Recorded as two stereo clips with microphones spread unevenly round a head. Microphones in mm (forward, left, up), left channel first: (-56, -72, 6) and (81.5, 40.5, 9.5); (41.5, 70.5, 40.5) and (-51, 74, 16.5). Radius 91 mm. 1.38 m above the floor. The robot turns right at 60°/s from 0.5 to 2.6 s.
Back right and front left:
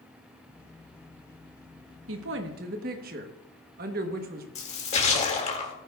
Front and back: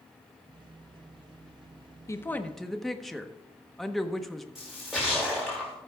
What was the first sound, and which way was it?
A woman speaking, 50° left.